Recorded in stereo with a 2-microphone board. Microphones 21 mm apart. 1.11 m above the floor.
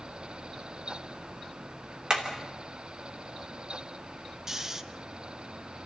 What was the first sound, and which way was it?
Hammering, 45° right (ahead or behind).